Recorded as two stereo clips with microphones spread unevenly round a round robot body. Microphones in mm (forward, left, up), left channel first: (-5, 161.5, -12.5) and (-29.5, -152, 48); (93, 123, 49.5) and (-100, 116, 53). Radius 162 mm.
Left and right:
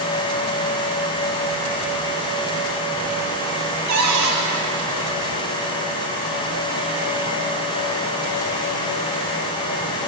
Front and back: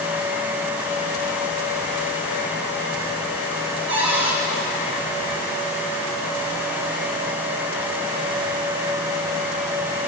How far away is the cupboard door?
About 5.5 m.